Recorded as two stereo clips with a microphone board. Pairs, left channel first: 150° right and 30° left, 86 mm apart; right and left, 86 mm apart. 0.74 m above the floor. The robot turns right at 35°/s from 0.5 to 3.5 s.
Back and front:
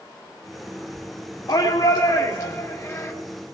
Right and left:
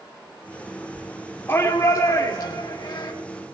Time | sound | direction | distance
1.5 | a shout | 140° right | 1.8 m